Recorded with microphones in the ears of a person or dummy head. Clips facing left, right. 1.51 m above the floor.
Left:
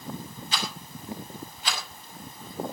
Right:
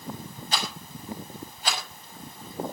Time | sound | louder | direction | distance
0.5 | a rattle | right 2 dB | 40° right (ahead or behind) | 5.5 m